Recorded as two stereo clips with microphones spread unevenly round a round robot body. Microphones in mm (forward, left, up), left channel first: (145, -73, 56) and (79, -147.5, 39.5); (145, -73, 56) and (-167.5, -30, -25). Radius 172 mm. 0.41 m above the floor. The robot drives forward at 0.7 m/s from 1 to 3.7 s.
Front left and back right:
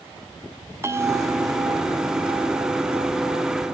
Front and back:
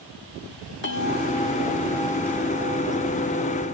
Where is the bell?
65° right, 1.8 m; by 3.7 s 125° right, 2 m.